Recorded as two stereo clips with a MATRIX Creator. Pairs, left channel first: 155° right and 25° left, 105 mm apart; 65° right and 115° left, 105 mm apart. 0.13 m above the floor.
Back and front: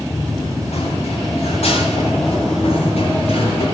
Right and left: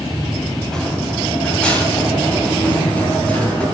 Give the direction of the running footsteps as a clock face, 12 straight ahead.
5 o'clock.